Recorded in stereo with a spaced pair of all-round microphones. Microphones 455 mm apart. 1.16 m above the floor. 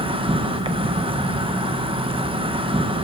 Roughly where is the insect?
Centre.